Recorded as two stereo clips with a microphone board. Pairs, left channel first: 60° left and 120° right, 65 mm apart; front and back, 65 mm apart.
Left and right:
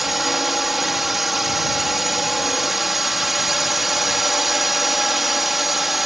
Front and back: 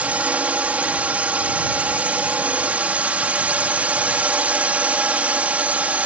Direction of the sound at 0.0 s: 155° left.